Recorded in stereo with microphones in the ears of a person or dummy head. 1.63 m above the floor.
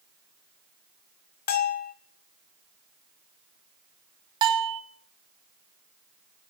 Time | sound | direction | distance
1.5 | a bell | 45° left (ahead or behind) | 0.9 m
4.4 | a bell | 25° right (ahead or behind) | 1.4 m